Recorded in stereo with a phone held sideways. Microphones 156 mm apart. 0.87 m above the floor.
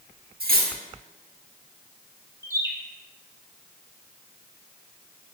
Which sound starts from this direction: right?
Cutlery clinking, at 0.4 s.